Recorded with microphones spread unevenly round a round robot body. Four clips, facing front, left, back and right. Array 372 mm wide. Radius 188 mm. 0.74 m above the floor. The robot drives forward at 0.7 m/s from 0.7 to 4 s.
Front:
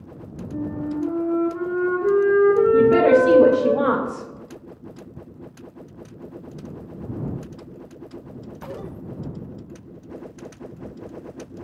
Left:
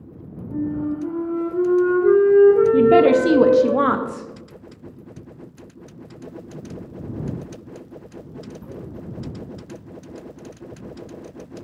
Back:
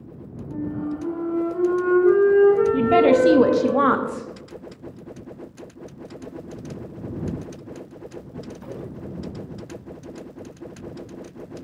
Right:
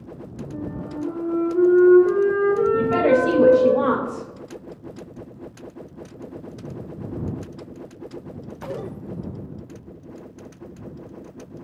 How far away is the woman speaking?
About 0.8 m.